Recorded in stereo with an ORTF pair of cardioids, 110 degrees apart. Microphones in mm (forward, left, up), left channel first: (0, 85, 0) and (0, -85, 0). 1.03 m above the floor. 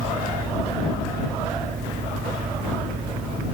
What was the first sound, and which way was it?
A fan, 60° right.